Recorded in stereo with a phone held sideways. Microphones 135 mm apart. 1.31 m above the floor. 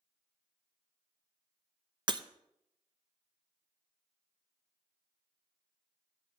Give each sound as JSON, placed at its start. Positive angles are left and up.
{"t": 2.1, "sound": "breaking glass", "side_deg": -35, "distance_m": 0.5}